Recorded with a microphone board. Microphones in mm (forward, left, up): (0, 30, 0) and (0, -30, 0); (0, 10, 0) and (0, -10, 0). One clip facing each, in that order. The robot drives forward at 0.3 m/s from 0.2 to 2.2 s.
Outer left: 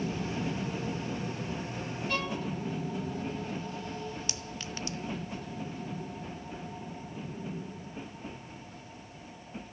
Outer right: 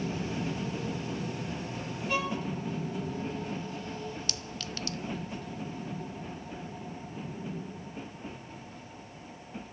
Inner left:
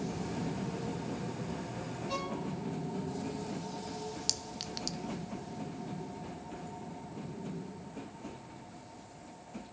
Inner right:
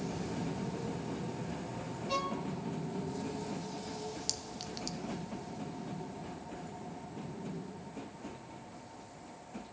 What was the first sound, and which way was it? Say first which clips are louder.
A violin: outer right 3 dB, inner right 3 dB; 10° right (ahead or behind).